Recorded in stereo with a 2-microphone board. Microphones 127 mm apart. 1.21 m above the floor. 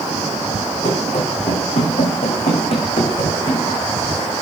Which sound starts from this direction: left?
Running footsteps, at 0.8 s.